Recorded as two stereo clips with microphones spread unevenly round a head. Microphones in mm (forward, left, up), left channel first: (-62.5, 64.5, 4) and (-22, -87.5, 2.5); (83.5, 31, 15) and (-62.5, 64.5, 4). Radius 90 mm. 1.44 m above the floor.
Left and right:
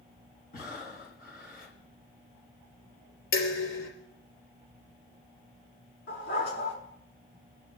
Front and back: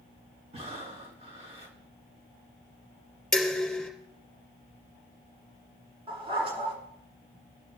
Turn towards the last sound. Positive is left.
turn(degrees=115)